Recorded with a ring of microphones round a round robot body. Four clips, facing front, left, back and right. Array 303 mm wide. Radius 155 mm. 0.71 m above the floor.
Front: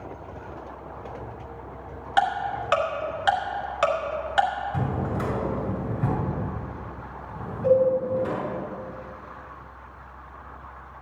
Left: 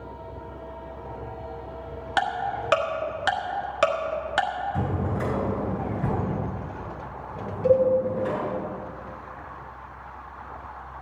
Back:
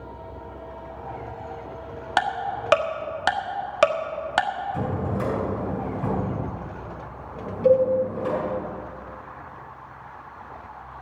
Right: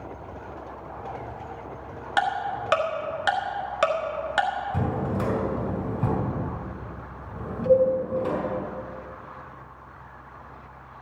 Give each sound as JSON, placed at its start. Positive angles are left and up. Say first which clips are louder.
{"t": 2.2, "sound": "ticking", "louder": "right 1 dB, front 1 dB", "azimuth_deg": 180, "distance_m": 1.7}
{"t": 4.7, "sound": "a drawer", "louder": "right 1 dB, back 1 dB", "azimuth_deg": -65, "distance_m": 4.5}
{"t": 7.6, "sound": "a cowbell", "louder": "right 1 dB, back 2 dB", "azimuth_deg": -175, "distance_m": 2.0}